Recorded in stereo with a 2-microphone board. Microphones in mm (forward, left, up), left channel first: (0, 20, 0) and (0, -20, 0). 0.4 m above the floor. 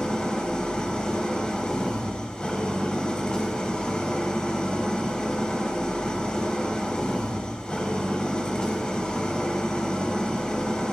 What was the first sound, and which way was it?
An engine running, 20° left (ahead or behind).